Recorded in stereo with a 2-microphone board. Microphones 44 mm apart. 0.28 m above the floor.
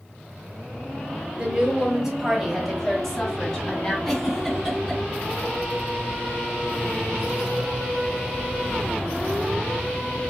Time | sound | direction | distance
1.4 | a woman speaking | 25° right (ahead or behind) | 1.1 m
4.0 | a giggle | 5° left (ahead or behind) | 2 m